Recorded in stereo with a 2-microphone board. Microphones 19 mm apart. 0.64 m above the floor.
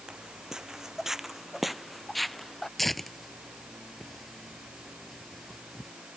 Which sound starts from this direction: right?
Footsteps, at 0.1 s.